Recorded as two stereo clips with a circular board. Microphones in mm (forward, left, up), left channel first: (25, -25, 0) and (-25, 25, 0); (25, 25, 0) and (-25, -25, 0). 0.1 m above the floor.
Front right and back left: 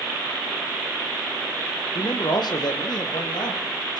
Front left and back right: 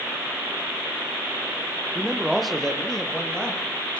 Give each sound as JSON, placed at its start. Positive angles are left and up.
{"t": 1.9, "sound": "a man speaking", "azimuth_deg": -55, "distance_m": 2.5}